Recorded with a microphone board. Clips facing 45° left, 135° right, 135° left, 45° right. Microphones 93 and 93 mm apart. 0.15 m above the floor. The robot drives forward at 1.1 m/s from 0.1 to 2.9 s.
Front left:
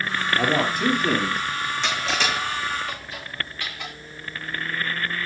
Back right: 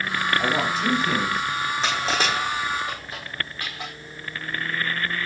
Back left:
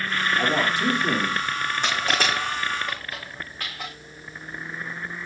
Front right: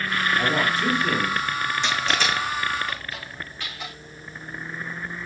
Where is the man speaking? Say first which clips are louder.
Front left 3 dB, back left 1 dB; 55° left, 3.5 m; by 1.4 s 75° left, 3 m.